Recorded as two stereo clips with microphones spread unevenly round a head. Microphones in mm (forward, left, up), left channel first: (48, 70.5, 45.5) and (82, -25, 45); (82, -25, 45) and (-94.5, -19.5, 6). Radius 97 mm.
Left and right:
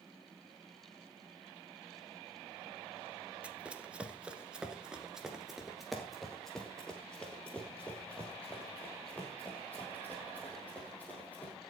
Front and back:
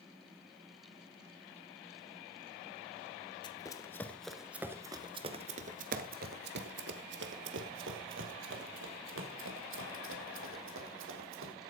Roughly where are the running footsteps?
Ahead.